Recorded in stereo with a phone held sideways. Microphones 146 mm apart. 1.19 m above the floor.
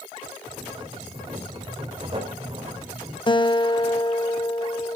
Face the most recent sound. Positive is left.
turn(degrees=35)  # may be behind; listen again after turning